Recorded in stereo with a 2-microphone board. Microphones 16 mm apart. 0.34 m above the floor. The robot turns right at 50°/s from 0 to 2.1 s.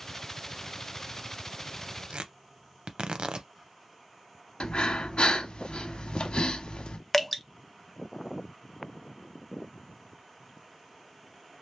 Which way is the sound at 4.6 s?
80° left.